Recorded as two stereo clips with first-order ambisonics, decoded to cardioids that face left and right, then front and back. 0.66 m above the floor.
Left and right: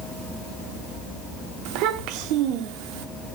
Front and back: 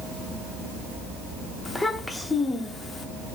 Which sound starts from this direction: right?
A child speaking, at 1.6 s.